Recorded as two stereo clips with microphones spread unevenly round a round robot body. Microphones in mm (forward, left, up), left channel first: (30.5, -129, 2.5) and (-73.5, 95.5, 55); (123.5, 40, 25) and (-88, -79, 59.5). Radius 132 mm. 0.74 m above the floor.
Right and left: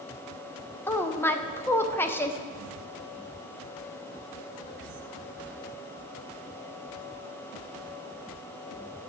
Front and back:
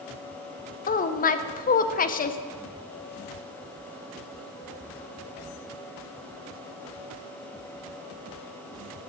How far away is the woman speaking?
About 0.7 m.